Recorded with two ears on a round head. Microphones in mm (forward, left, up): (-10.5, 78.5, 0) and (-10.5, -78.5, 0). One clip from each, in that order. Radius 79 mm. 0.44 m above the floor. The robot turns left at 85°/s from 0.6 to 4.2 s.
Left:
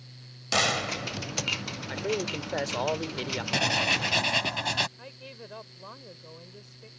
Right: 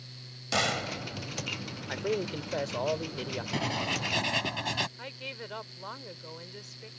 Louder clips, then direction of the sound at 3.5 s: Left 7 dB; 80° left.